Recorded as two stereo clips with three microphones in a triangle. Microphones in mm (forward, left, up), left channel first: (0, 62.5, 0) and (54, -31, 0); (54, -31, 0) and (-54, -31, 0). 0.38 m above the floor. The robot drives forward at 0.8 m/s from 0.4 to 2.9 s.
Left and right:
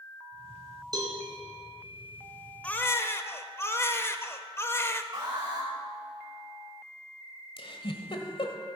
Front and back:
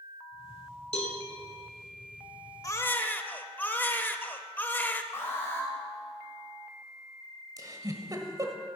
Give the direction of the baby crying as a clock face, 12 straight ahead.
10 o'clock.